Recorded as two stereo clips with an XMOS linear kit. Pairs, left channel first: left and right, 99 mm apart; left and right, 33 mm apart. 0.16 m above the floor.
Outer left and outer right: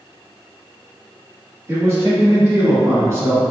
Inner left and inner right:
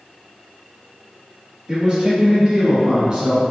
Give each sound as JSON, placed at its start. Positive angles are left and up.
{"t": 1.7, "sound": "a man speaking", "side_deg": -25, "distance_m": 1.3}